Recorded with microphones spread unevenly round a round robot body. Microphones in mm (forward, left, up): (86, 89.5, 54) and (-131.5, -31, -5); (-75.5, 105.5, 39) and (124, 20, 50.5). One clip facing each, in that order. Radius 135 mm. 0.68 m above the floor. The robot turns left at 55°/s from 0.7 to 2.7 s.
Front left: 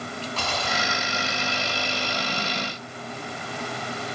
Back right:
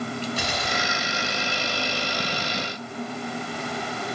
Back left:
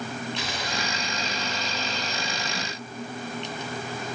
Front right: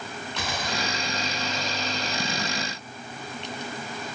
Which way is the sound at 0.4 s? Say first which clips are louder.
Back right 1 dB, front right 1 dB; 75° right.